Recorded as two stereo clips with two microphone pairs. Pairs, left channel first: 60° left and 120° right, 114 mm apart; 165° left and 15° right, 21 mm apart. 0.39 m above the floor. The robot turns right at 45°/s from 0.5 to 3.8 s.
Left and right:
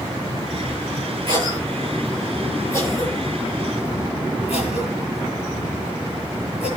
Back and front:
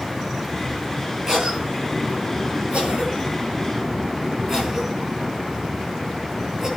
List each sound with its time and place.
1.3 s a cough: 70° right, 9.5 m; by 6.7 s 45° left, 9.5 m